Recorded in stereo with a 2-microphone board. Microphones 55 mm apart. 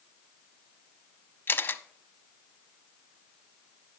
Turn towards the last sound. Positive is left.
turn(degrees=40)  # may be behind; listen again after turning